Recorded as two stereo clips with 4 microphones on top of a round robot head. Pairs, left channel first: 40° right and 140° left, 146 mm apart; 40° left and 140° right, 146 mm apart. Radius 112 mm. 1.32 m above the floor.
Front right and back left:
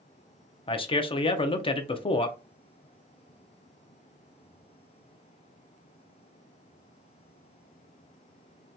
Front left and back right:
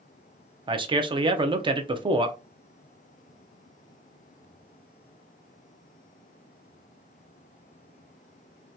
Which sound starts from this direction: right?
A man speaking, at 0.7 s.